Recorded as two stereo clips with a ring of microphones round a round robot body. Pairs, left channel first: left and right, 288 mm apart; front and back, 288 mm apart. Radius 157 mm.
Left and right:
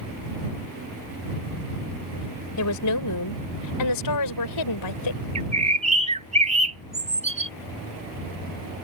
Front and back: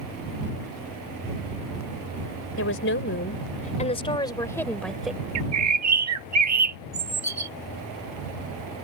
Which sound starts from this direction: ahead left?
A woman speaking, at 2.6 s.